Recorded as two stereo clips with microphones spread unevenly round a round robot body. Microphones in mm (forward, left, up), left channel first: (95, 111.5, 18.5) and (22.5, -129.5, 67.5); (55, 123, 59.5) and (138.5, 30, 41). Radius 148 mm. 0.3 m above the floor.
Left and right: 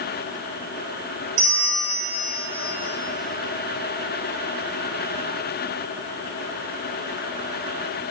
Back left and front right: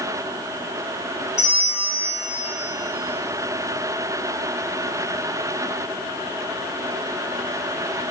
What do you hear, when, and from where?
1.4 s a bell: 150° right, 5.5 m